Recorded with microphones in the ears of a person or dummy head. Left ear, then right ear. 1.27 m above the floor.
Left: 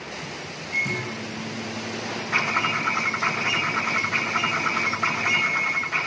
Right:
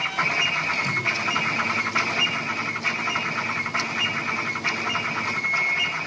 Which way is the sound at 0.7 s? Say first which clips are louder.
Right 3 dB; 20° right (ahead or behind).